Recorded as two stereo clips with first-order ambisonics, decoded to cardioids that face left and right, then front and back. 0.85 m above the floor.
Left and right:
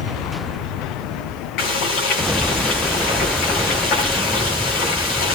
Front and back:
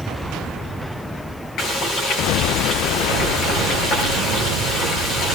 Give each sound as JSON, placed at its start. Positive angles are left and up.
{"t": 1.6, "sound": "frying", "azimuth_deg": 50, "distance_m": 10.0}